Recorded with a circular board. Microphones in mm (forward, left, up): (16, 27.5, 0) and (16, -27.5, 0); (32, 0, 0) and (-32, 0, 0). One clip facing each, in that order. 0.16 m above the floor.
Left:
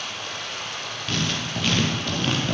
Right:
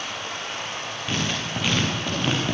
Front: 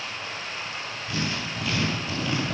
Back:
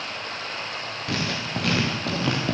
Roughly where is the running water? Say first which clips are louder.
Right 1 dB, back 2 dB; behind right.